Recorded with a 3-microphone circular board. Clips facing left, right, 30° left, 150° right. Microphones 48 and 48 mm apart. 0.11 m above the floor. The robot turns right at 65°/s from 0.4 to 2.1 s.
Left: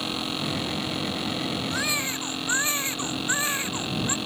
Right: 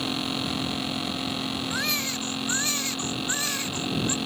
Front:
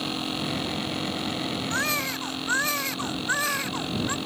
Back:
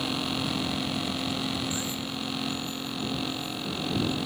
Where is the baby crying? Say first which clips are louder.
Left 1 dB, front 6 dB; 5° right; by 4.2 s 20° left.